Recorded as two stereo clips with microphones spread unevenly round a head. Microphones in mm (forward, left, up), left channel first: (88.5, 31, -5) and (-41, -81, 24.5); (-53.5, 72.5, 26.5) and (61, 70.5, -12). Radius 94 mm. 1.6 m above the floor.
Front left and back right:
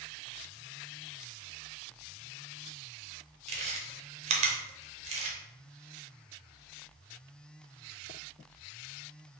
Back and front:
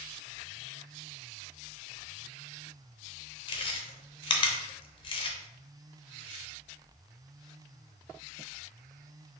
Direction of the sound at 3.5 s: 175° left.